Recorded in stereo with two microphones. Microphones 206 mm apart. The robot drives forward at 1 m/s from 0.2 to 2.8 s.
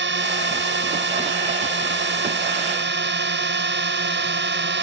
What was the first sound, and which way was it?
A drone, 65° right (ahead or behind).